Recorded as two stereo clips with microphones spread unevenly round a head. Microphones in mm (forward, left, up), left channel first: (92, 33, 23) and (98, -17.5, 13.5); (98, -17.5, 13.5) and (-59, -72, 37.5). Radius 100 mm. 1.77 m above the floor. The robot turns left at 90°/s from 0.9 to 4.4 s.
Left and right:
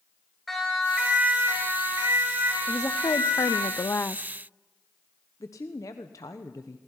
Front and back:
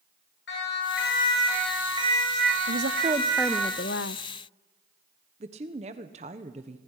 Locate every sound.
0.5 s a siren: 10° left, 9 m; by 3.7 s 105° left, 10 m
2.7 s a woman speaking: 175° left, 0.6 m; by 4.2 s 30° left, 0.6 m
5.4 s a woman speaking: 140° left, 1.2 m